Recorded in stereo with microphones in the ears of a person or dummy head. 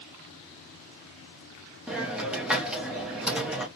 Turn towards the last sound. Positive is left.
turn(degrees=-10)  # may be behind; listen again after turning